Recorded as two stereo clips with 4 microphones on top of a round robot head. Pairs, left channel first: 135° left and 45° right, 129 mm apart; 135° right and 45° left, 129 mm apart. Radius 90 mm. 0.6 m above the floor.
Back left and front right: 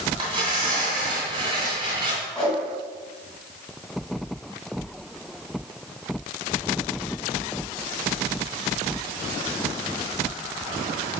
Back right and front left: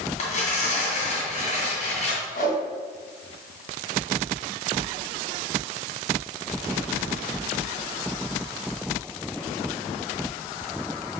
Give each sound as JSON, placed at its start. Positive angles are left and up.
{"t": 0.2, "sound": "tearing paper", "azimuth_deg": -100, "distance_m": 2.5}
{"t": 2.4, "sound": "a whoosh", "azimuth_deg": -140, "distance_m": 3.0}